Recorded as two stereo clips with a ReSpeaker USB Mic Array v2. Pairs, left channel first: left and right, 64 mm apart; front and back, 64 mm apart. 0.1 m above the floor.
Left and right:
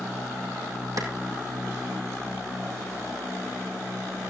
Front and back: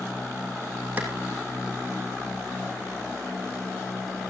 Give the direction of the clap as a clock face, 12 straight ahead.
4 o'clock.